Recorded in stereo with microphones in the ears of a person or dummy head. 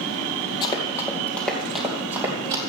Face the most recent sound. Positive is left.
turn(degrees=-20)  # may be behind; listen again after turning